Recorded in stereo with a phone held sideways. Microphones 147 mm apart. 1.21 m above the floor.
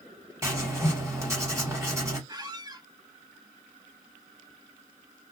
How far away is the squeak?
About 0.5 m.